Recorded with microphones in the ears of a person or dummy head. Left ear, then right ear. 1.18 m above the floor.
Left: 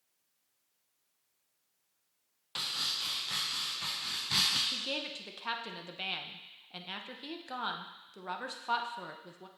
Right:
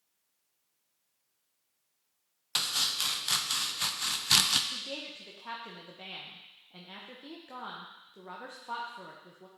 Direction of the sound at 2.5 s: 45° right (ahead or behind).